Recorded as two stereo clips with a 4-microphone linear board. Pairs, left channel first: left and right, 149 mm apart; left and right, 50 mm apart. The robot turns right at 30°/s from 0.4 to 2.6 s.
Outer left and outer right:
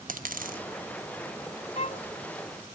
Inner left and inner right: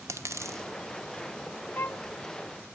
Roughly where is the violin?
Left.